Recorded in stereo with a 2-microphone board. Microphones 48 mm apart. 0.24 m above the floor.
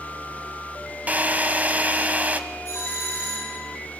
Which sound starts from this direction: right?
A drill, at 1.1 s.